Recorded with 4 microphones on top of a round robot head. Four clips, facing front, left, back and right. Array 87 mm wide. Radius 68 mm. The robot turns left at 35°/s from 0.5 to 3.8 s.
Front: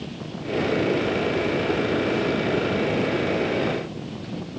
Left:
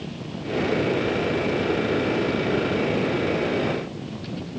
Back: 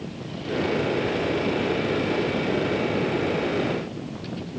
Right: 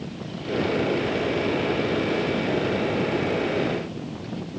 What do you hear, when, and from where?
Only background noise.